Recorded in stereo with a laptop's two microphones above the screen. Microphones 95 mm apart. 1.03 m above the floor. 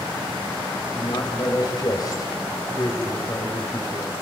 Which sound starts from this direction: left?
A man speaking, at 0.9 s.